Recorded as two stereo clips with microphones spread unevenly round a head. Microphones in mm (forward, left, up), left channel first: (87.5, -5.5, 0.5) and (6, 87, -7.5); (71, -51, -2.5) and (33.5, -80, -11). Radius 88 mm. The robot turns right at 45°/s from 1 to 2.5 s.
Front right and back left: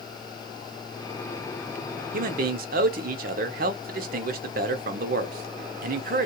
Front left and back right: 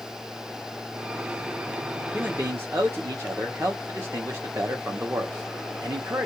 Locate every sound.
2.1 s a man speaking: 135° left, 0.7 m; by 6.2 s 150° left, 0.7 m